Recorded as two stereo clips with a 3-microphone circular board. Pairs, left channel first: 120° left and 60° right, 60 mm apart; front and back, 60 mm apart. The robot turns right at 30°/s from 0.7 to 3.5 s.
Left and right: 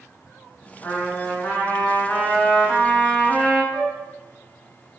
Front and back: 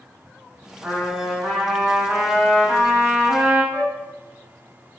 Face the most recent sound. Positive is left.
turn(degrees=0)